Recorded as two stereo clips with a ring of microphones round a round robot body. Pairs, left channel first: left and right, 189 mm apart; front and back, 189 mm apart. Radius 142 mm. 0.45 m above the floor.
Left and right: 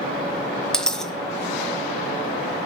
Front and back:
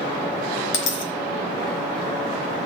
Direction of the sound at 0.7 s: 5° left.